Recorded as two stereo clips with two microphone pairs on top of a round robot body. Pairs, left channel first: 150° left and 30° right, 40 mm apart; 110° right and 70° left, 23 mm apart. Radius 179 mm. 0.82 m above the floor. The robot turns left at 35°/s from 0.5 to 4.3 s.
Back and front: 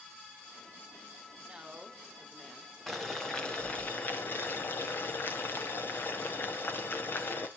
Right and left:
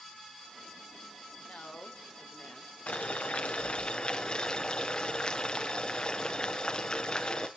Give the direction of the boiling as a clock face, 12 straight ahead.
4 o'clock.